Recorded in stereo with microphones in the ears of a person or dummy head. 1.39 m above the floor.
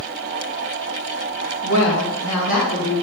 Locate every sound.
1.6 s a woman speaking: 75° left (ahead or behind), 1.7 m